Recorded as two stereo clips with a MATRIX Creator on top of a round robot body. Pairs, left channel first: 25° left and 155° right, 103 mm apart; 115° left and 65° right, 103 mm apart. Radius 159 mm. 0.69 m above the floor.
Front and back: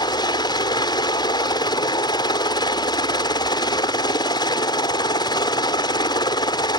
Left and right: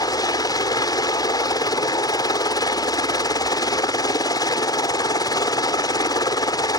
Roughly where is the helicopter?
Ahead left.